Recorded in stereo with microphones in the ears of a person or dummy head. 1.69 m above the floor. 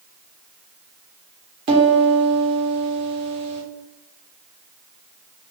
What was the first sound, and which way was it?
A piano, 30° right (ahead or behind).